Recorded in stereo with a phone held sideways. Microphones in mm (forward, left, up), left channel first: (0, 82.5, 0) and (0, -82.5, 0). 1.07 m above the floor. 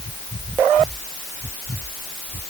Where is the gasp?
I don't hear a gasp.